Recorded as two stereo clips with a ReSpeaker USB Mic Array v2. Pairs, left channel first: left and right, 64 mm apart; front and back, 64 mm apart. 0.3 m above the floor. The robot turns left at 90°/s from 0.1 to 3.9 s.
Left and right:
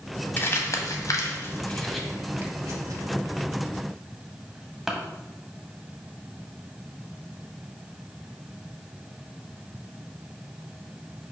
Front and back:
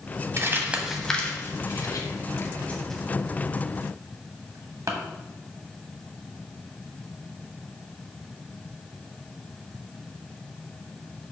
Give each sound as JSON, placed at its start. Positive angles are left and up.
{"t": 0.4, "sound": "crumpling", "azimuth_deg": 145, "distance_m": 0.8}